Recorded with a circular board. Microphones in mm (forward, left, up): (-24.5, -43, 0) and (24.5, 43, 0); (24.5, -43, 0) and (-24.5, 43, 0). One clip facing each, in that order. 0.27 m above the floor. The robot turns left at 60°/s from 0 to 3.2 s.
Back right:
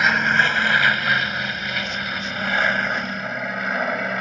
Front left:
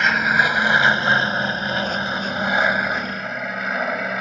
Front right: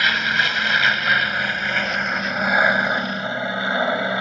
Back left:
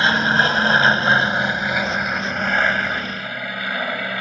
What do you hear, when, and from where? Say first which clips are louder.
0.0 s an aircraft: even, back left 4 dB; 155° left; by 4.2 s 25° right